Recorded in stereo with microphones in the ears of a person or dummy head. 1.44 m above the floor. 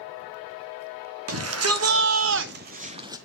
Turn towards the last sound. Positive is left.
turn(degrees=-15)  # may be behind; listen again after turning